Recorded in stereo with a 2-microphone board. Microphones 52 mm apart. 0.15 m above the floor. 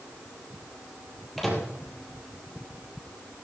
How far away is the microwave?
About 3.5 m.